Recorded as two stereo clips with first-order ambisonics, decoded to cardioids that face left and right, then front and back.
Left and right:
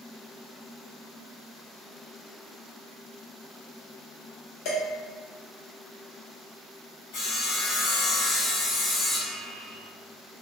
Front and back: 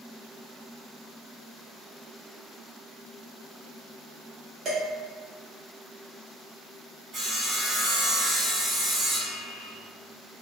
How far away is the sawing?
About 1.9 m.